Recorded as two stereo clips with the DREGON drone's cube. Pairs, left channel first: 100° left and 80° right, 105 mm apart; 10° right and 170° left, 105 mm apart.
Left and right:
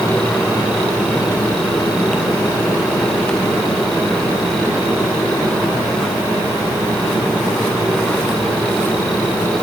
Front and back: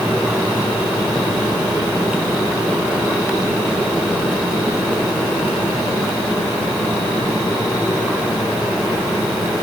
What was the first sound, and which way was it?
Only background noise.